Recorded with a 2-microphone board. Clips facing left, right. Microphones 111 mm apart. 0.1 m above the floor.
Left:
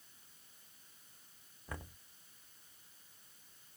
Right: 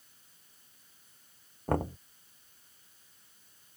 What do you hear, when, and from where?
1.7 s knocking: 60° right (ahead or behind)